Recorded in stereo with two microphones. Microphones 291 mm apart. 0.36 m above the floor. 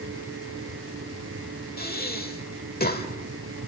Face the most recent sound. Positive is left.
turn(degrees=30)  # may be behind; listen again after turning